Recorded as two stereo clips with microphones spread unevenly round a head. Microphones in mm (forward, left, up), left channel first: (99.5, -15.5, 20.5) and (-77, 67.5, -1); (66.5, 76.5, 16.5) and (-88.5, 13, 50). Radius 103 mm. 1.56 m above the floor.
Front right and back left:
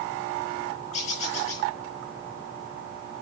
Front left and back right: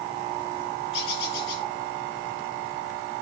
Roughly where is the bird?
Ahead.